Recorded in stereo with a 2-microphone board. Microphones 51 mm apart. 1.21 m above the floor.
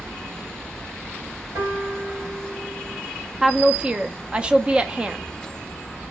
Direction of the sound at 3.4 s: 20° right (ahead or behind).